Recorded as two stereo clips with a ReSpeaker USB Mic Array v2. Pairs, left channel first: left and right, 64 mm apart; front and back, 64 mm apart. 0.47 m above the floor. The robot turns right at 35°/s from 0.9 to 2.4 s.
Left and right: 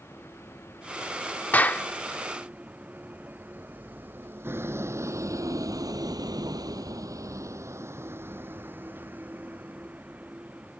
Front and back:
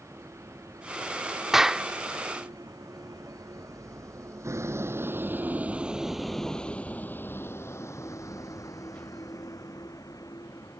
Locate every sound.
0.0 s a vehicle: 140° left; by 10.8 s 20° right
1.5 s a clap: 105° left; by 1.9 s 115° left